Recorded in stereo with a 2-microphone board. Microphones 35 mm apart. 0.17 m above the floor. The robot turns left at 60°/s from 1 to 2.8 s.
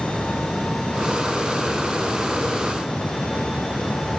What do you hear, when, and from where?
Only background noise.